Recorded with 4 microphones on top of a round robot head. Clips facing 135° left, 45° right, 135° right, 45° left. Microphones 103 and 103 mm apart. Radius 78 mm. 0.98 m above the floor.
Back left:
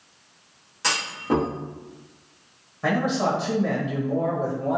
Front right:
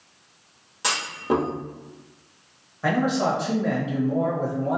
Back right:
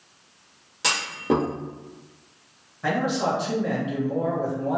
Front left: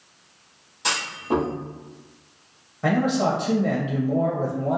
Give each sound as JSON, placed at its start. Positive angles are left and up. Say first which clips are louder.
{"t": 0.8, "sound": "a clunk", "louder": "even, back right 2 dB", "azimuth_deg": -120, "distance_m": 0.9}
{"t": 2.8, "sound": "a man speaking", "louder": "front right 1 dB, front left 3 dB", "azimuth_deg": 60, "distance_m": 0.8}